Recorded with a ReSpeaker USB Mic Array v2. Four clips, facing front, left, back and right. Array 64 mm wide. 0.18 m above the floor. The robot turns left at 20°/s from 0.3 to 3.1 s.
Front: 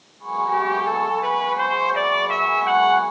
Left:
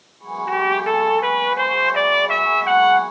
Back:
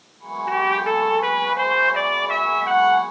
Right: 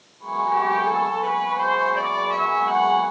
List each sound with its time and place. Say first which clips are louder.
0.5 s a trumpet: left 2 dB, back 2 dB; 125° left, 3.5 m; by 3.0 s 75° left, 3.5 m